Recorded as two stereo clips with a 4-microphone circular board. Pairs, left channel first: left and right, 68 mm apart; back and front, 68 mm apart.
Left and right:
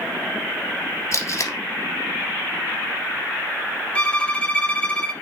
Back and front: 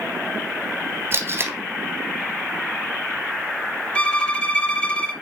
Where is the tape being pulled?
50° left, 1.4 m.